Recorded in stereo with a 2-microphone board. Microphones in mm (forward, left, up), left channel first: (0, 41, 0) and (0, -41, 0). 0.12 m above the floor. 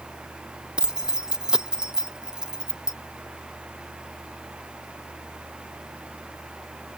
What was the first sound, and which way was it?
Keys jangling, 10° right (ahead or behind).